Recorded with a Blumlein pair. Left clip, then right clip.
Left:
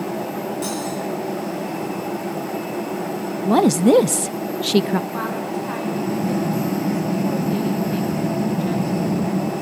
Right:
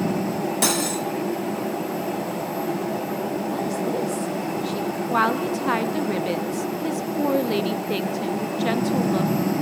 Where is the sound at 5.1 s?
30° right, 2 m.